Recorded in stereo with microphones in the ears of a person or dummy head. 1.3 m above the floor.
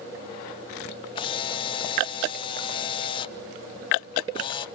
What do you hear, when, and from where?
1.1 s a camera shutter: 30° left (ahead or behind), 0.6 m